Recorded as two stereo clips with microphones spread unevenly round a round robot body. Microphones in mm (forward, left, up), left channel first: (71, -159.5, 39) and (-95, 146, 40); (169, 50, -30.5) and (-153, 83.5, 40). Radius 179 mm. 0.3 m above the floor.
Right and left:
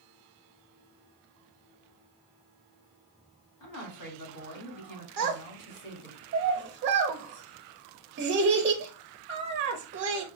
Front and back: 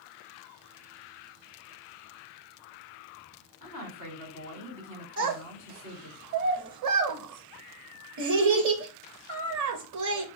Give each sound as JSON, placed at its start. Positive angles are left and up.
{"t": 3.6, "sound": "a woman speaking", "azimuth_deg": -60, "distance_m": 2.0}
{"t": 5.2, "sound": "a child speaking", "azimuth_deg": 160, "distance_m": 0.5}